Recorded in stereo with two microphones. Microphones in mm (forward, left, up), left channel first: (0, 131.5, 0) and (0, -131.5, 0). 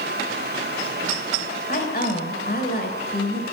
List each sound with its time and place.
1.7 s a woman speaking: 40° left (ahead or behind), 3 m